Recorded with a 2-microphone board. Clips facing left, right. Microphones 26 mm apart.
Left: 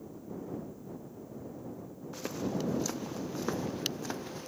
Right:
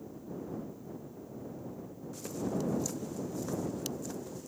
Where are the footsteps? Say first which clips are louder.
Left 1 dB; 35° left (ahead or behind); by 4.5 s 50° left (ahead or behind).